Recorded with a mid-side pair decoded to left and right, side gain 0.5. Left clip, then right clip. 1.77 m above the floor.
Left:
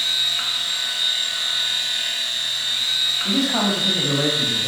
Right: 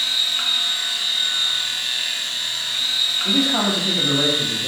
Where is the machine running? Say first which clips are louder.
Right 1 dB; 10° right, 0.8 m.